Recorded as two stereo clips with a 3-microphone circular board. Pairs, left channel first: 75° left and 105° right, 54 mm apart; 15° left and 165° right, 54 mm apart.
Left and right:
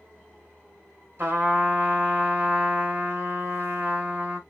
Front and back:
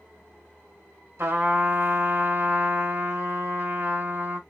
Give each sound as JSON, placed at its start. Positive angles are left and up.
{"t": 1.2, "sound": "a trumpet", "azimuth_deg": -145, "distance_m": 2.0}